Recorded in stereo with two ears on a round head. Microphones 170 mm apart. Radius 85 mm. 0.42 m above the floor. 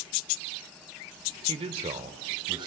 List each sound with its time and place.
1.5 s a man speaking: 30° right (ahead or behind), 1.1 m; by 2.7 s 25° right (ahead or behind), 2 m